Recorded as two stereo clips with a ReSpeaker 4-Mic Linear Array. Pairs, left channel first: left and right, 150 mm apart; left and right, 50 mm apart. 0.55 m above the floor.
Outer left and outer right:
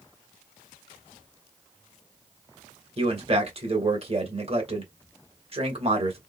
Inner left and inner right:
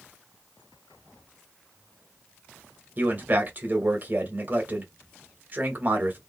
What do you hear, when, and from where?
3.0 s a man speaking: 40° right (ahead or behind), 1.6 m